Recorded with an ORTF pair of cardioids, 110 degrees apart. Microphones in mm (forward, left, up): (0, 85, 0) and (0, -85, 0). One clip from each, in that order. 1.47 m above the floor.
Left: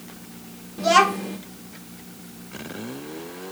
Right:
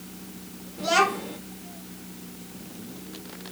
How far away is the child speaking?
About 1.9 m.